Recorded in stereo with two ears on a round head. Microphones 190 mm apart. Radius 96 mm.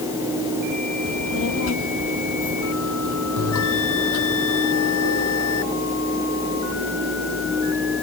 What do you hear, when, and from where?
1.1 s a child speaking: 70° left (ahead or behind); by 4.4 s 80° left
3.4 s a bell: 75° left (ahead or behind)